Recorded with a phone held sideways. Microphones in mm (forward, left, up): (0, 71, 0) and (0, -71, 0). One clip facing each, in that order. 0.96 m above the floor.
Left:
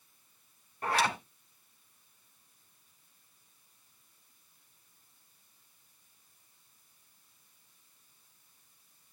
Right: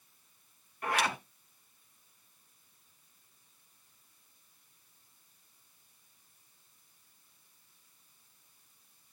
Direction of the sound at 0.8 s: 35° left (ahead or behind).